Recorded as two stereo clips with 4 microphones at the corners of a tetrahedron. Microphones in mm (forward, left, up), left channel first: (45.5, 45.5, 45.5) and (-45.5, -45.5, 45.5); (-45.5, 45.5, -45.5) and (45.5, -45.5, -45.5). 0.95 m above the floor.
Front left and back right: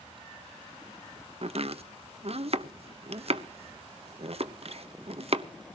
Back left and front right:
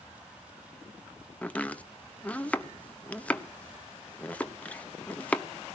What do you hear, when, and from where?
1.4 s chopping: 150° right, 0.9 m